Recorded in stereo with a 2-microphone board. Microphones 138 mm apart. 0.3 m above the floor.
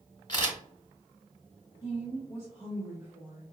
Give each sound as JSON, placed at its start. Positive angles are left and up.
{"t": 0.3, "sound": "a camera shutter", "side_deg": 35, "distance_m": 1.5}
{"t": 1.8, "sound": "a woman speaking", "side_deg": -20, "distance_m": 1.4}